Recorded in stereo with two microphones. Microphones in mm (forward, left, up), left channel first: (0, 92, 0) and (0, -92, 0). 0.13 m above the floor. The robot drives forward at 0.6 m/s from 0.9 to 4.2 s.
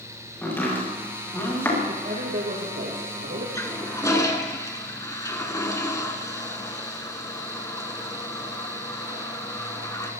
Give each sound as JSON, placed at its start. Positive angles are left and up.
{"t": 0.4, "sound": "chopping", "side_deg": 10, "distance_m": 6.5}
{"t": 1.9, "sound": "a man speaking", "side_deg": -60, "distance_m": 4.0}
{"t": 3.5, "sound": "a toilet flushing", "side_deg": 15, "distance_m": 1.7}